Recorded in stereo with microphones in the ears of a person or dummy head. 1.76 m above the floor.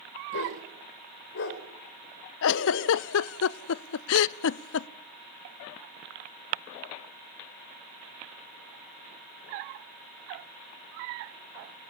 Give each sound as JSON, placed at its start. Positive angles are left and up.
{"t": 0.3, "sound": "a dog barking", "side_deg": 70, "distance_m": 3.0}
{"t": 2.4, "sound": "a giggle", "side_deg": 75, "distance_m": 0.6}